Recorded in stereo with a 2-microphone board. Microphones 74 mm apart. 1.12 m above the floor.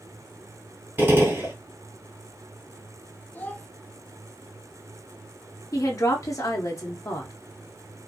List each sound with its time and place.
1.0 s a gunshot: 30° right (ahead or behind), 1.8 m
3.3 s a child speaking: 25° left (ahead or behind), 0.6 m
5.7 s a woman speaking: 50° left (ahead or behind), 0.7 m